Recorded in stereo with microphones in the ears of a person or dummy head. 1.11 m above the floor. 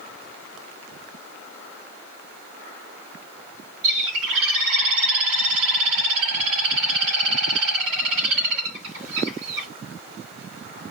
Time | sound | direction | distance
3.8 | a bird | 75° right (ahead or behind) | 2.5 m